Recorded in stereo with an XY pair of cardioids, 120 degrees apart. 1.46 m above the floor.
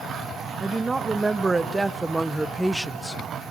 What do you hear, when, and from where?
0.6 s a woman speaking: 25° right, 1.9 m; by 3.2 s 10° left, 0.7 m